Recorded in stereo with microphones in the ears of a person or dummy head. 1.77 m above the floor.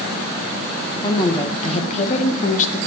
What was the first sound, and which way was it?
A woman speaking, 30° left (ahead or behind).